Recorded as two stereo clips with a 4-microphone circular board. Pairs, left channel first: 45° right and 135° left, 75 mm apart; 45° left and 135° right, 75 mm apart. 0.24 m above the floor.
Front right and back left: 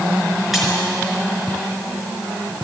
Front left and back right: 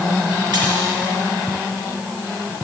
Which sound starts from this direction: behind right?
A splash, at 0.5 s.